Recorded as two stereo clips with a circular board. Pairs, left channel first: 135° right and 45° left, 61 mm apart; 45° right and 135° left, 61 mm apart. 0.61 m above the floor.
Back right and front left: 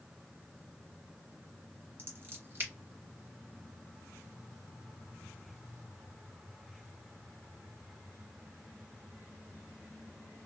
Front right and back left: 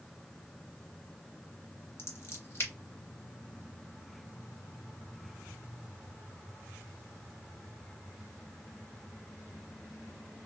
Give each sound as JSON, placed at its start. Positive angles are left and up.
{"t": 2.0, "sound": "scissors", "azimuth_deg": -5, "distance_m": 1.7}